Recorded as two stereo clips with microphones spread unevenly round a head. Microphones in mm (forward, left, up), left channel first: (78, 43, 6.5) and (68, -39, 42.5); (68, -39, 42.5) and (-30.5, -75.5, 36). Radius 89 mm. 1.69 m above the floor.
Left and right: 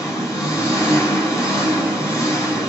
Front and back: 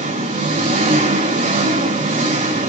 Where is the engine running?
Straight behind, 5.5 m.